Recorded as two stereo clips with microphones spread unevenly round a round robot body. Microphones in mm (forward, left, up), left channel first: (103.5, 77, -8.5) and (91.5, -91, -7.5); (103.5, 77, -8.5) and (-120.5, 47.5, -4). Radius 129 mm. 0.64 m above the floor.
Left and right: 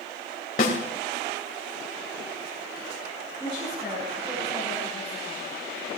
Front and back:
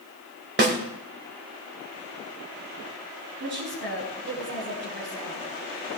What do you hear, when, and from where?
0.6 s a snare drum: 145° left, 2.5 m
3.4 s a woman speaking: straight behind, 5 m